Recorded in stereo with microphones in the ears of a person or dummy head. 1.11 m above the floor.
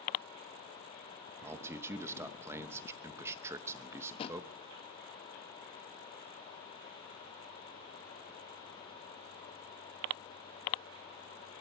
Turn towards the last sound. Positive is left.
turn(degrees=25)  # may be behind; listen again after turning